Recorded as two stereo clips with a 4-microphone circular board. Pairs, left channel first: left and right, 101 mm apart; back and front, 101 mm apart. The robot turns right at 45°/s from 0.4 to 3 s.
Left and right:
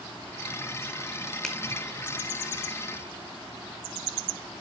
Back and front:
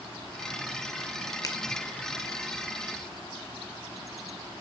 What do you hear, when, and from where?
1.4 s a finger snap: 170° left, 1.3 m; by 1.6 s 175° left, 1.3 m